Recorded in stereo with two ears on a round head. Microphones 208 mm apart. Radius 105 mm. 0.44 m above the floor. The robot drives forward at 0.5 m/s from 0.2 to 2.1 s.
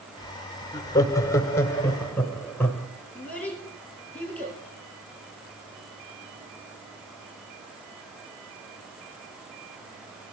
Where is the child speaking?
5° left (ahead or behind), 7 m.